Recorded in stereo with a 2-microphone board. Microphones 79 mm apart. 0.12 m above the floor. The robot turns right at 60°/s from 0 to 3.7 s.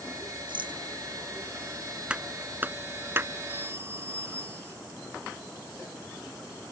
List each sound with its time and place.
0.5 s a rattle: 80° right; by 0.8 s 70° right (ahead or behind)
2.1 s a clap: 15° right (ahead or behind); by 3.3 s 30° right (ahead or behind)
3.5 s a phone ringing: 20° right (ahead or behind); by 4.8 s 30° right (ahead or behind)